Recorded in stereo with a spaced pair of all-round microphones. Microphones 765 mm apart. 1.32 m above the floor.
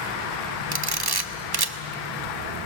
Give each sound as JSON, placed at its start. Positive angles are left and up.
{"t": 0.7, "sound": "a camera shutter", "side_deg": -35, "distance_m": 0.7}